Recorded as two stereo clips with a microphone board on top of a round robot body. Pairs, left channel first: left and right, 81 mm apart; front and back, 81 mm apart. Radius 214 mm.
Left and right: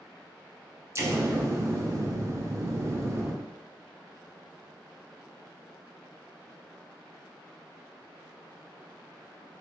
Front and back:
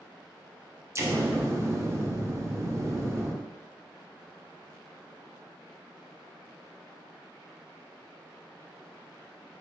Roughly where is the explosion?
Behind right.